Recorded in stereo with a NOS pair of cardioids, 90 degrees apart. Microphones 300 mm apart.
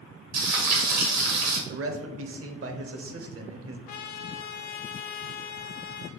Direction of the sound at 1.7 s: 45° right.